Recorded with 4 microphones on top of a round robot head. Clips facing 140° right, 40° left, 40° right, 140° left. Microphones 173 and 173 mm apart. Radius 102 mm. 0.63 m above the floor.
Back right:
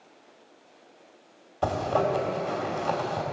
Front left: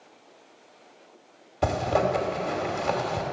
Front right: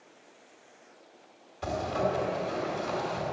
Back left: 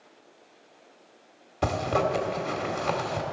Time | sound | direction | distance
1.6 | a zipper | 120° left | 2.5 m